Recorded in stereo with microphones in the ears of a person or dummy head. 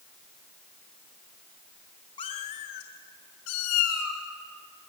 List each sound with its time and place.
2.2 s a cat meowing: 25° left (ahead or behind), 1.3 m; by 4.2 s 75° left (ahead or behind), 2.5 m